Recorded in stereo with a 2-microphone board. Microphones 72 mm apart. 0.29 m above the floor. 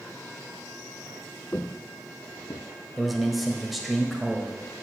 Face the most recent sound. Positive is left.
turn(degrees=0)  # may be behind; listen again after turning